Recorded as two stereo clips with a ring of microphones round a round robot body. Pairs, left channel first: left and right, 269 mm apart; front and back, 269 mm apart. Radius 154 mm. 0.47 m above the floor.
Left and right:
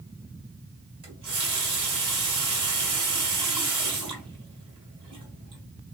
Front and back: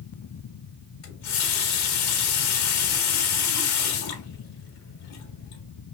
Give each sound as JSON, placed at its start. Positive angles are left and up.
{"t": 1.0, "sound": "a running tap", "azimuth_deg": -20, "distance_m": 2.0}